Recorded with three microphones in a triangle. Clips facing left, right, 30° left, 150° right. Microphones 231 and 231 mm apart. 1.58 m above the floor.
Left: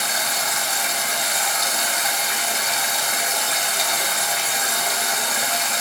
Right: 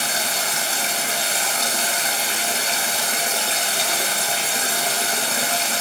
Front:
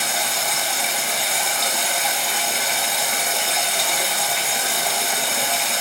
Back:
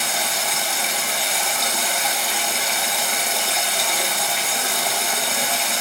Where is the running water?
60° right, 0.8 m.